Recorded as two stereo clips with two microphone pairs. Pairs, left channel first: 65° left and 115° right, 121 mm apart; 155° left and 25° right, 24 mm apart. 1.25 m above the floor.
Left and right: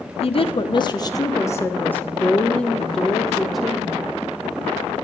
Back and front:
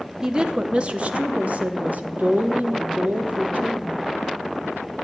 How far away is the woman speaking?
About 1.1 m.